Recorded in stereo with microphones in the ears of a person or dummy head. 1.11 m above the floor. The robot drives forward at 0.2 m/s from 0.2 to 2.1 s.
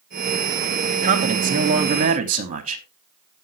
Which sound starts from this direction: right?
A man speaking, at 1.0 s.